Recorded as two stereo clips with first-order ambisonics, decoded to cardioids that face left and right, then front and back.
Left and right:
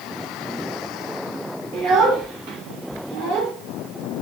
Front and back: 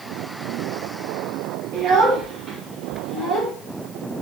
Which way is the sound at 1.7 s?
125° right.